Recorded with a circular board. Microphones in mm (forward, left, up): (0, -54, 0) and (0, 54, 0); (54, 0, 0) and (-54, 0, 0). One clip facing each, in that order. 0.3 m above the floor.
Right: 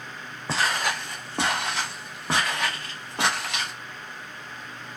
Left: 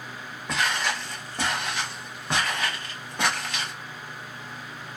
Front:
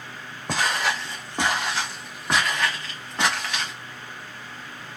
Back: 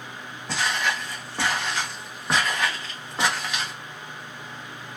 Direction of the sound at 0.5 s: 35° right.